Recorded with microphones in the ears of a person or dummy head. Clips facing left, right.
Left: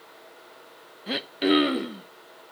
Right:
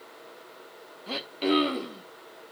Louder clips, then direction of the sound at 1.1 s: Left 4 dB; 15° left (ahead or behind).